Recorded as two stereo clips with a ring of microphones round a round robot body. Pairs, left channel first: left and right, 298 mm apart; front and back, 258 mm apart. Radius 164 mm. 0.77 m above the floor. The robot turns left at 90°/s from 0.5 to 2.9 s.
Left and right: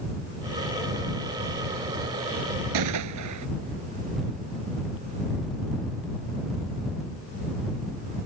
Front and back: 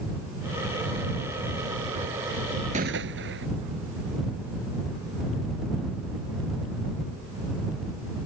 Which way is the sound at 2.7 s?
110° right.